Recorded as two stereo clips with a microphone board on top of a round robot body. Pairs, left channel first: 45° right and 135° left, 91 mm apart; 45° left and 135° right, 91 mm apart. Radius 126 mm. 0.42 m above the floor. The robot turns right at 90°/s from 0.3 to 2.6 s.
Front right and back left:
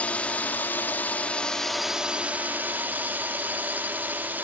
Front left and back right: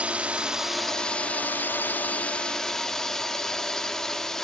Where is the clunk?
No clunk in this recording.